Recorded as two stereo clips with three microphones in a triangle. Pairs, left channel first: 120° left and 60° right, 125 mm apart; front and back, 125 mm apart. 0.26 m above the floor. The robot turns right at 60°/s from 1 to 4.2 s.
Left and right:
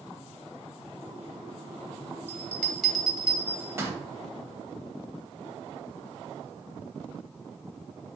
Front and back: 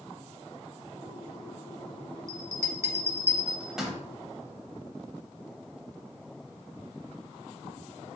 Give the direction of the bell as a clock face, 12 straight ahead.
6 o'clock.